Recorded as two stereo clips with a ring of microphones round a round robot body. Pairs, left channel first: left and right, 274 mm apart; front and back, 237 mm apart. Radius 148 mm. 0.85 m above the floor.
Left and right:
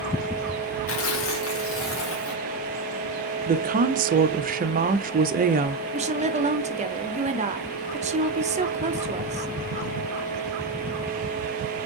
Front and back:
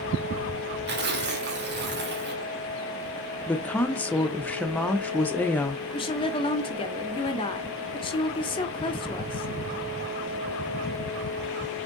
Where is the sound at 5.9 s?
50° right, 0.9 m.